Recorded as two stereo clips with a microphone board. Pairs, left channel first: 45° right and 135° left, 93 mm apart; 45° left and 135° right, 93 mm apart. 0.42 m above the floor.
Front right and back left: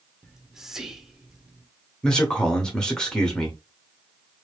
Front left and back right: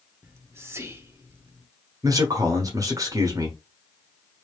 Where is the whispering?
145° right, 0.9 m.